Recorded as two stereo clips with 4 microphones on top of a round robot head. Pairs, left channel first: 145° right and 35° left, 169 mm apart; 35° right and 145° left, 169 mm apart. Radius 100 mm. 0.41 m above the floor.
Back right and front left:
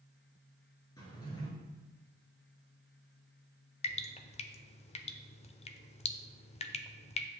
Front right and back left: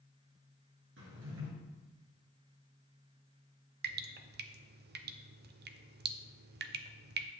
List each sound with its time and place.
1.0 s a drawer: 145° left, 2.0 m
3.8 s dripping: 165° left, 0.6 m